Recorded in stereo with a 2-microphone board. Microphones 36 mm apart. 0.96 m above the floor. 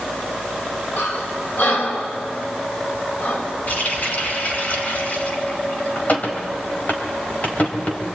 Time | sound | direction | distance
1.0 | breathing | 65° left (ahead or behind) | 4 m
3.7 | a running tap | 50° left (ahead or behind) | 3 m